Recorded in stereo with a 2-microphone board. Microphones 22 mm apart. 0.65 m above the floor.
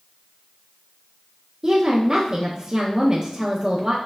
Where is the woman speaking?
30° right (ahead or behind), 0.6 m.